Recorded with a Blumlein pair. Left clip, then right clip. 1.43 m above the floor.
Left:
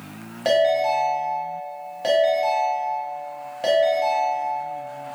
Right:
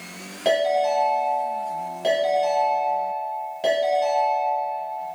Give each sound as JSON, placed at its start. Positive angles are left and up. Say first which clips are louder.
{"t": 0.5, "sound": "a ringtone", "louder": "left 2 dB", "azimuth_deg": 5, "distance_m": 0.9}